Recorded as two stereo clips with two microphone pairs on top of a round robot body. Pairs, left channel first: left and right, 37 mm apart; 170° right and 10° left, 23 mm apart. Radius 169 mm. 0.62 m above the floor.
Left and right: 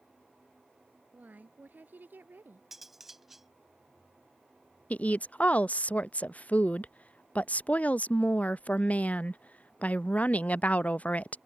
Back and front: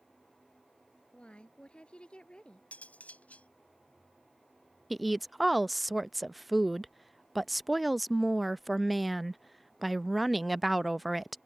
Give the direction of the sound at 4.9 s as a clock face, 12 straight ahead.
8 o'clock.